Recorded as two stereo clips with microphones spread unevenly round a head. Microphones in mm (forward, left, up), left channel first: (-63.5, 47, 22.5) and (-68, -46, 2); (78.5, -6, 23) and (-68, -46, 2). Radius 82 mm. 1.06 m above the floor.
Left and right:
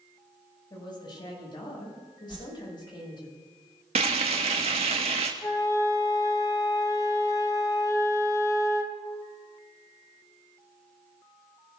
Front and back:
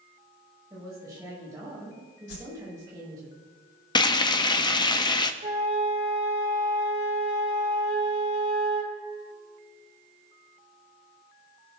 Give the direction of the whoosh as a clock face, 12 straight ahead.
11 o'clock.